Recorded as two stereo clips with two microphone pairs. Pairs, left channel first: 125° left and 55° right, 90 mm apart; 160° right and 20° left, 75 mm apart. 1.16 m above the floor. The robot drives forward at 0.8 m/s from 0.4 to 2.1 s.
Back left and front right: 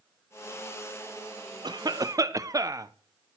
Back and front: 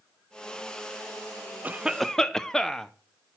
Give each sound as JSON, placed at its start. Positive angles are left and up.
{"t": 1.6, "sound": "a cough", "azimuth_deg": -40, "distance_m": 0.7}